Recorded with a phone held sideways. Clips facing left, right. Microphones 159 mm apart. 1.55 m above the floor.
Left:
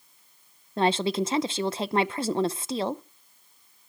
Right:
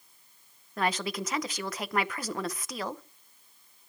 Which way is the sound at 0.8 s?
25° left (ahead or behind).